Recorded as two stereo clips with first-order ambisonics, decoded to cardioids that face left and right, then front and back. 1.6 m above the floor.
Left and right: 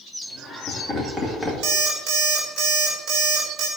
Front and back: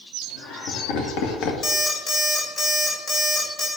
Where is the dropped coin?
I don't hear a dropped coin.